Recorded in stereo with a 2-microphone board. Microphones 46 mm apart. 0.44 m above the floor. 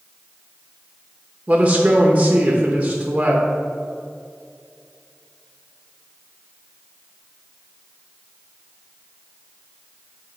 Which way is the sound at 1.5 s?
30° right (ahead or behind).